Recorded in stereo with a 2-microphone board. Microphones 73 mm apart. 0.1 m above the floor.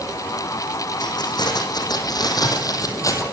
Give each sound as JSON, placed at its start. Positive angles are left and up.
{"t": 1.0, "sound": "keys jangling", "side_deg": 70, "distance_m": 4.5}